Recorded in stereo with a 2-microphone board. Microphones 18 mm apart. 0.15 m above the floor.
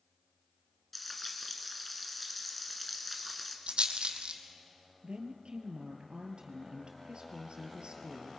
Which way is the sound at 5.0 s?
65° right (ahead or behind).